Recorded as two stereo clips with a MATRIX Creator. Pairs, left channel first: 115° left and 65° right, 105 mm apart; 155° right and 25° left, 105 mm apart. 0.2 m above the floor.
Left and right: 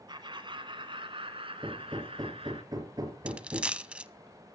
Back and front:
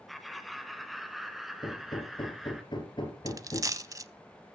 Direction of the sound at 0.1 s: 65° right.